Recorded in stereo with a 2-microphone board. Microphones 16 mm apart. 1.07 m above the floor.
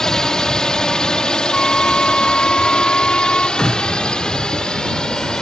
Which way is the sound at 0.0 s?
40° left (ahead or behind).